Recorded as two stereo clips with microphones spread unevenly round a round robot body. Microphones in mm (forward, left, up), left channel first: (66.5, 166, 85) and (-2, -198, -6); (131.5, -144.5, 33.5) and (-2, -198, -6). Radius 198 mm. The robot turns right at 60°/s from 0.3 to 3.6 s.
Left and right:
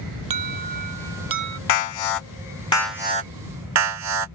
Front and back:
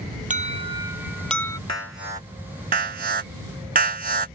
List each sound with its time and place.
0.3 s an alarm: 125° right; by 1.6 s 45° right
1.7 s an alarm: 100° left; by 4.3 s 145° right